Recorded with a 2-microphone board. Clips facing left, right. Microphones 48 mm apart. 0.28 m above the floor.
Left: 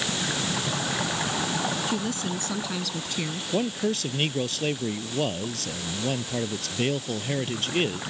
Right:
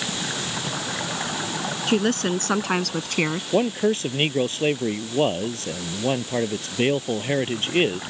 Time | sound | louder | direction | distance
1.9 | a woman speaking | right 7 dB | 60° right (ahead or behind) | ?
3.5 | a man speaking | right 5 dB | 30° right (ahead or behind) | ?